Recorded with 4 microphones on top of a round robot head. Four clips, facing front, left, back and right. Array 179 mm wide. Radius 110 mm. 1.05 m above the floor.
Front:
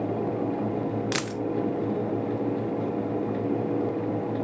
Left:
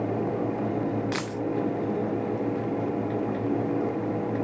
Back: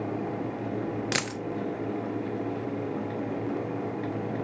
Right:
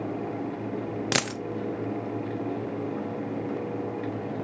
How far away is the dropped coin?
About 0.8 m.